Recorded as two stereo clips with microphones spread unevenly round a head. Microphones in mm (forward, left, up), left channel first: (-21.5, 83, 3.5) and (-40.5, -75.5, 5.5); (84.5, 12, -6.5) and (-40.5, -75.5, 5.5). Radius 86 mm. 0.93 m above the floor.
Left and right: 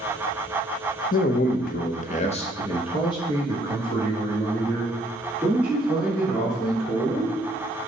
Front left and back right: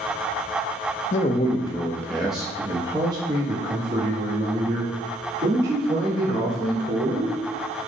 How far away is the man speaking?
About 0.6 m.